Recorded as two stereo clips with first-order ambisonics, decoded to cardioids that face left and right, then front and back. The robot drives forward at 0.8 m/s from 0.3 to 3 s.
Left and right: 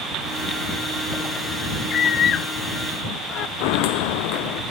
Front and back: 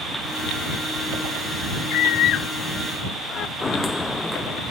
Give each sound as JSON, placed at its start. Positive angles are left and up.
{"t": 1.9, "sound": "a scream", "azimuth_deg": 30}
{"t": 3.6, "sound": "footsteps", "azimuth_deg": 75}